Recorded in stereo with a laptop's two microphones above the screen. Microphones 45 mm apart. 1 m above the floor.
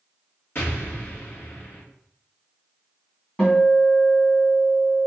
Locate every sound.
0.6 s an explosion: 50° left (ahead or behind), 1.9 m
3.4 s a guitar: 10° left (ahead or behind), 1.9 m